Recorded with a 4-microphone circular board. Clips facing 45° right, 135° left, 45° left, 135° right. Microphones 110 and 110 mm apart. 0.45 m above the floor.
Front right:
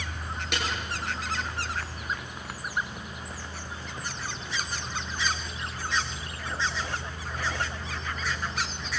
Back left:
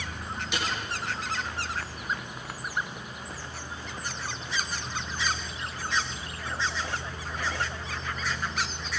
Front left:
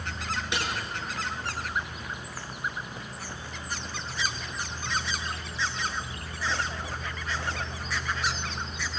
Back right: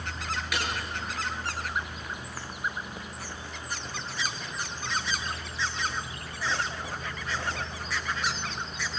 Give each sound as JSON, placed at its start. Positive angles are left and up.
{"t": 0.5, "sound": "a snare drum", "azimuth_deg": -20, "distance_m": 8.5}